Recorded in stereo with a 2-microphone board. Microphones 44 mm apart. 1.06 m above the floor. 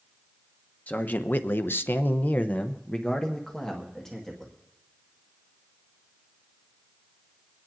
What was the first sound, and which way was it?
A man speaking, 35° left (ahead or behind).